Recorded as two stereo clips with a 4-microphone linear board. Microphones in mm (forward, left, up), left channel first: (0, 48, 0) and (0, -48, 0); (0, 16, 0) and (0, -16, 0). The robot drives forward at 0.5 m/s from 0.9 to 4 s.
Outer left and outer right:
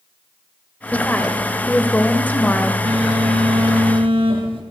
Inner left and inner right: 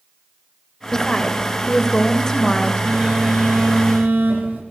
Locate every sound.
0.9 s a woman speaking: 15° left (ahead or behind), 1.1 m
2.9 s a phone buzzing: 70° right (ahead or behind), 4.5 m; by 4.6 s 65° right (ahead or behind), 5 m